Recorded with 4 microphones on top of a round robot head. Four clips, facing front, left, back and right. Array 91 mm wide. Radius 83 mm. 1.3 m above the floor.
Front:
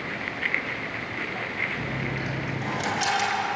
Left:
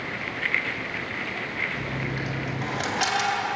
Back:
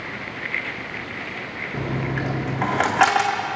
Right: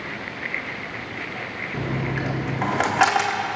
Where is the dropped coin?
145° right, 1.4 m.